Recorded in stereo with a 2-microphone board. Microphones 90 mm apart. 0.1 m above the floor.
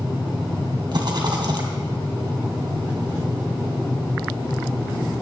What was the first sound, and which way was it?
A rattle, 55° right (ahead or behind).